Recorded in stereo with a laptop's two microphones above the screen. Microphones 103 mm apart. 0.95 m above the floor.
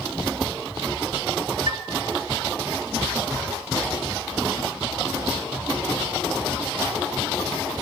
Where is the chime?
50° right (ahead or behind), 0.7 m.